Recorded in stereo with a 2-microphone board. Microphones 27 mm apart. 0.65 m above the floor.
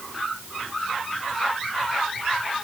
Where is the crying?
I don't hear crying.